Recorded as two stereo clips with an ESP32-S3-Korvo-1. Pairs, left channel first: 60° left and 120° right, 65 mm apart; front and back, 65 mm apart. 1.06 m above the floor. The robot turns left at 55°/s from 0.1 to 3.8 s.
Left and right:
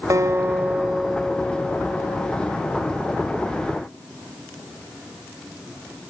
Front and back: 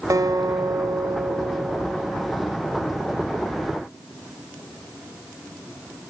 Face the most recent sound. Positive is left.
turn(degrees=5)